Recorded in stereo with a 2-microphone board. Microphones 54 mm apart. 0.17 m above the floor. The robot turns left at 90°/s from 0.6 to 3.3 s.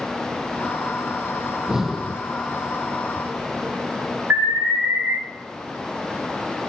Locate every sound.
1.5 s breathing: 145° right, 0.9 m; by 2.2 s 150° left, 0.9 m
4.3 s an alarm: 50° right (ahead or behind), 6.5 m